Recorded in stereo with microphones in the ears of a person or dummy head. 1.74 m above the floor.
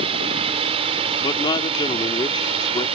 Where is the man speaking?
20° left (ahead or behind).